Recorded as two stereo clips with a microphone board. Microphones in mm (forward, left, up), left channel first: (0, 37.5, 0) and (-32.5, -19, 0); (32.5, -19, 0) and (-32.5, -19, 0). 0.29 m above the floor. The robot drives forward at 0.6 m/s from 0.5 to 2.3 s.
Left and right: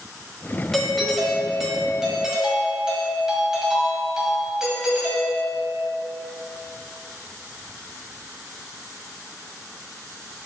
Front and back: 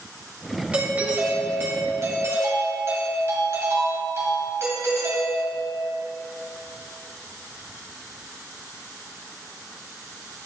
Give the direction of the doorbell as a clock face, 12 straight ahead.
7 o'clock.